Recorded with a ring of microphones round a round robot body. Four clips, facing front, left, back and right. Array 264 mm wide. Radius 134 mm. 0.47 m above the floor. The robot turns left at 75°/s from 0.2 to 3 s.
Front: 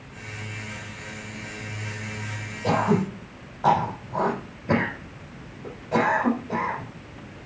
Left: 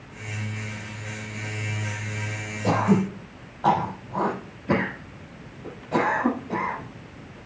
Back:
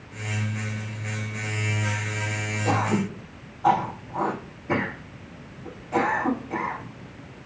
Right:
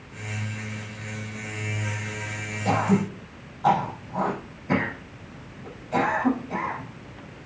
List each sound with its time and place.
2.6 s throat clearing: 60° left, 6 m; by 7.5 s 35° left, 6 m